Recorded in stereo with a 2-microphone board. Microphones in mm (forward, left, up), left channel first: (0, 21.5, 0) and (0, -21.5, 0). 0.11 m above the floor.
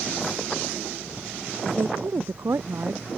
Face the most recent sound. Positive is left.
turn(degrees=-75)  # may be behind; listen again after turning